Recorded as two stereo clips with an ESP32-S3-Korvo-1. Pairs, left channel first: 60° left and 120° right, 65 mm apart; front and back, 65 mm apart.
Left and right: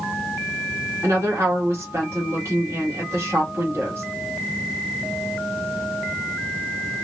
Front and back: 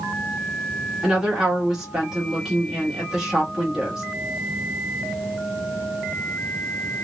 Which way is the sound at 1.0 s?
100° right.